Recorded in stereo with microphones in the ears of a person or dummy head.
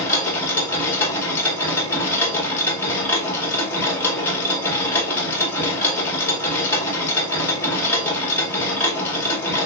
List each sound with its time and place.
0.0 s a machine running: 20° left (ahead or behind), 2.0 m